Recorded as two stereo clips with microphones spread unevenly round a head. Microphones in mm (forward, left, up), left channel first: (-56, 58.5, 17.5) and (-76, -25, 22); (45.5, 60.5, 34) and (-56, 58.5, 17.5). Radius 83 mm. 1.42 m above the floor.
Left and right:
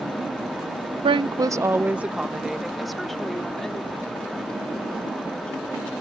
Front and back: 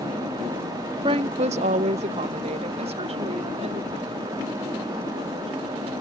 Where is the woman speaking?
120° right; by 5.9 s 155° left.